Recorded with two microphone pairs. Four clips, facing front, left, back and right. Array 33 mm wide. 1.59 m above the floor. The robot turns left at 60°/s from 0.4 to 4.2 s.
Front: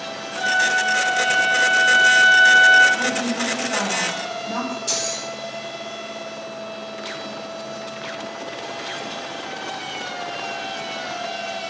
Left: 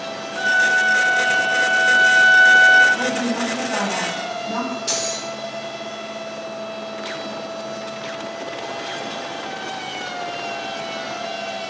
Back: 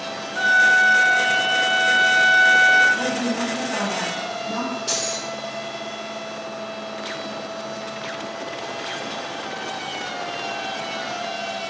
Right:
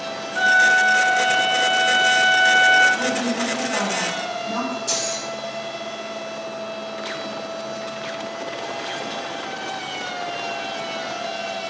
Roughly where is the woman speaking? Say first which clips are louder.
Left 1 dB, front 1 dB; left.